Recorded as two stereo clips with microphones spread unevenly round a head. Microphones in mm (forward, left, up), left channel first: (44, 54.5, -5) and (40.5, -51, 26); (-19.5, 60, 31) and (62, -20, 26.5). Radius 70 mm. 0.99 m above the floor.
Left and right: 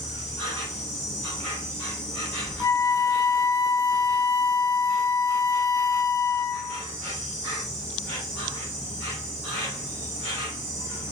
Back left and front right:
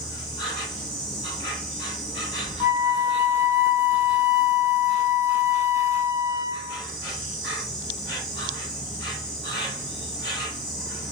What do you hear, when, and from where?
0.0 s an insect: 140° left, 1.7 m
2.6 s a flute: 25° left, 0.7 m